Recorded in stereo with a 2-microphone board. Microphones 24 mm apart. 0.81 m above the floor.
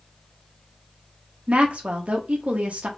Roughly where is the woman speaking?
Right.